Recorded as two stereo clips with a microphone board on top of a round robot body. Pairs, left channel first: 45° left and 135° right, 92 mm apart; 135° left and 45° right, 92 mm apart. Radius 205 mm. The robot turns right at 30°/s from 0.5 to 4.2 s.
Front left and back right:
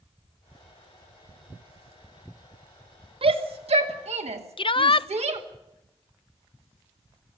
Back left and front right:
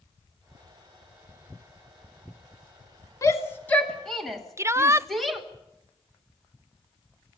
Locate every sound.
3.2 s a shout: 165° right, 2 m; by 5.4 s 135° right, 2 m
4.6 s a shout: 15° left, 0.6 m